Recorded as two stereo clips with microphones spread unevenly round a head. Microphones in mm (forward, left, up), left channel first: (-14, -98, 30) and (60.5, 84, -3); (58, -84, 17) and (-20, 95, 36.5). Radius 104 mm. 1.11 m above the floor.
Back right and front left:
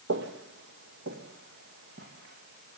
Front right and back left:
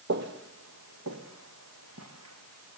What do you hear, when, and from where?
0.1 s footsteps: 100° left, 1.8 m; by 2.8 s 120° left, 5 m